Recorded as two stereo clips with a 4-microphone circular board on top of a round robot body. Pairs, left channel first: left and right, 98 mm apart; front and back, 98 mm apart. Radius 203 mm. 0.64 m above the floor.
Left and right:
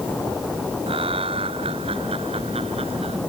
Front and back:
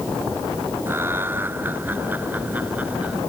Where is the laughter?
110° right; by 3.2 s 105° right.